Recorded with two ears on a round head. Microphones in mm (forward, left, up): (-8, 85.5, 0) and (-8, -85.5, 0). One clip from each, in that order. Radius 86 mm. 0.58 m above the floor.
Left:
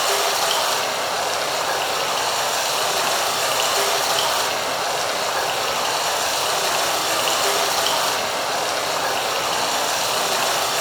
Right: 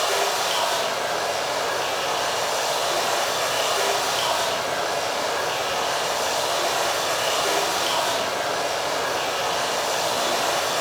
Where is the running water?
35° left (ahead or behind), 1.4 m.